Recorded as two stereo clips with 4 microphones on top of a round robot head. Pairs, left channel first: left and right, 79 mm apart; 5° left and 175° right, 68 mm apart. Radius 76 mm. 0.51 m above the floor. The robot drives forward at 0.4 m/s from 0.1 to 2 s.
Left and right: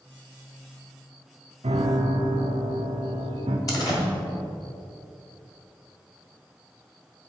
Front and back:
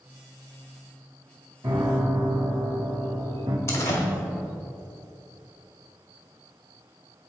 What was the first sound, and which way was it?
A piano, 115° right.